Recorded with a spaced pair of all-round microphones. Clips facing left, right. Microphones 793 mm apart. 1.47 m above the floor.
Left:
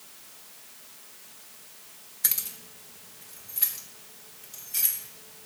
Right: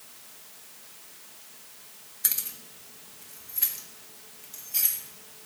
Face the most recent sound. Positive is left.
turn(degrees=10)  # may be behind; listen again after turning